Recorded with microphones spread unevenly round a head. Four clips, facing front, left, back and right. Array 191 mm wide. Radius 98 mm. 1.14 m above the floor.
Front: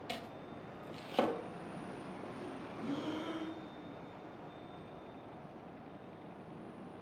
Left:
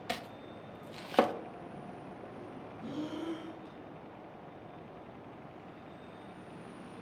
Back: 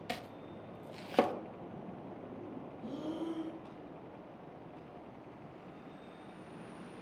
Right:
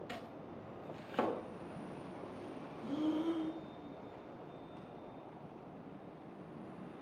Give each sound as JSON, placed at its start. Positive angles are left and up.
{"t": 0.1, "sound": "chopping", "azimuth_deg": 125, "distance_m": 0.6}
{"t": 2.8, "sound": "breathing", "azimuth_deg": 20, "distance_m": 3.5}